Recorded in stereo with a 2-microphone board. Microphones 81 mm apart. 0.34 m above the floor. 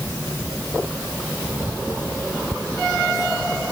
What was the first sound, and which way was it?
Only background noise.